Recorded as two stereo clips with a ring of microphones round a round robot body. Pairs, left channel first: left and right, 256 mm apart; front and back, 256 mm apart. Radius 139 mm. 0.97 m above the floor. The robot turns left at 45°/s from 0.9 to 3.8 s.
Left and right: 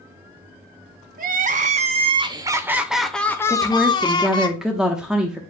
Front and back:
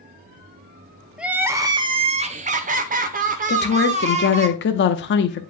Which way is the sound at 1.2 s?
95° right.